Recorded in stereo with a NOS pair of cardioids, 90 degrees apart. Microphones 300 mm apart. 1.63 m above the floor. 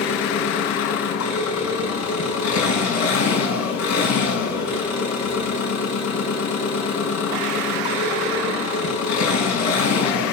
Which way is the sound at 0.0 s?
70° left.